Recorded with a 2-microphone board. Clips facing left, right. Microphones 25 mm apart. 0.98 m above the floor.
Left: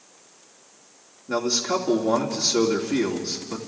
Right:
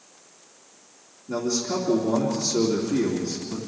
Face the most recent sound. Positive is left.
turn(degrees=45)  # may be behind; listen again after turning